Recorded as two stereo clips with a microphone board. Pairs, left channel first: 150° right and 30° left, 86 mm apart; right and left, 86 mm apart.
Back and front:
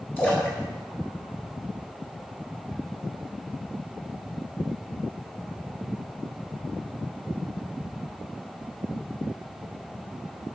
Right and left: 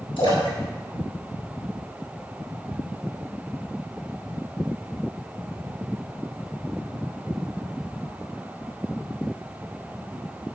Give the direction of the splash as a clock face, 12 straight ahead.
3 o'clock.